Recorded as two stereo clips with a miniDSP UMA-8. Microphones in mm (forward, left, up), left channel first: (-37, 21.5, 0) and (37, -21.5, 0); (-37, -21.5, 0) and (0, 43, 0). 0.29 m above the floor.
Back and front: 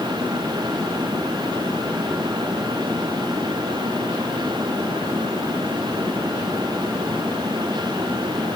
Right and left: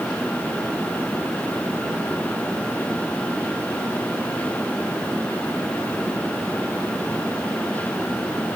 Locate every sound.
Only background noise.